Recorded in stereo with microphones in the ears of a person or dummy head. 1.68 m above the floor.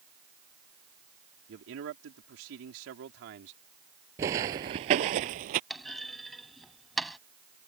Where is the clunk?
Centre (ahead or behind).